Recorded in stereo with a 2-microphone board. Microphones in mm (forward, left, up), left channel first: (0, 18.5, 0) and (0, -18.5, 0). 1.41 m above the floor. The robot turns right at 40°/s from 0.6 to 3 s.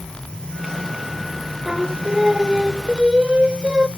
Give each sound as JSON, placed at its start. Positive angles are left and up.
{"t": 1.6, "sound": "singing", "azimuth_deg": 180, "distance_m": 1.2}